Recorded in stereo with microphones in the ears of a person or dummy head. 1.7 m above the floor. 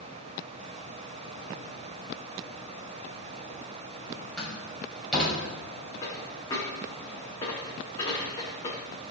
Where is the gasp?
I don't hear a gasp.